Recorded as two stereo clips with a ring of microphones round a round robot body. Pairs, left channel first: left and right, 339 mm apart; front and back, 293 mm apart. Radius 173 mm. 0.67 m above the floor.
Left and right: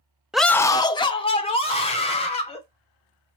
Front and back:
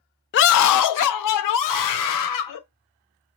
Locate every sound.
0.3 s a scream: 5° right, 0.5 m; by 2.6 s 15° left, 3 m